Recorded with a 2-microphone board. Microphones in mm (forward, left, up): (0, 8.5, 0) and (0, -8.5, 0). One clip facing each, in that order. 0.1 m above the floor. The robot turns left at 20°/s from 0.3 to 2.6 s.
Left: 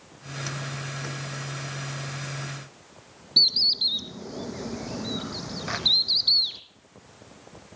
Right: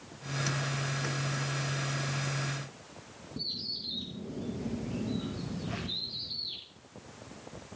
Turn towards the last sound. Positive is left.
turn(degrees=75)  # may be behind; listen again after turning